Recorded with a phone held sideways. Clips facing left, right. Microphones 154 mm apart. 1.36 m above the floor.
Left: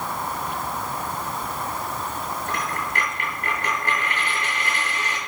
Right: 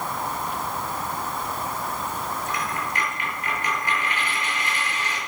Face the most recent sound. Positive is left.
turn(degrees=65)  # may be behind; listen again after turning